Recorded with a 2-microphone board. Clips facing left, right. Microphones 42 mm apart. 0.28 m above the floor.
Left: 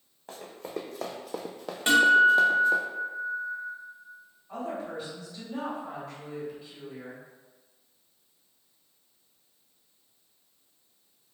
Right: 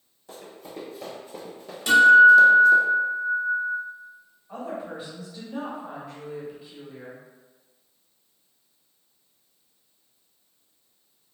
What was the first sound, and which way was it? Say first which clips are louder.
Running footsteps: left 3 dB; 40° left (ahead or behind).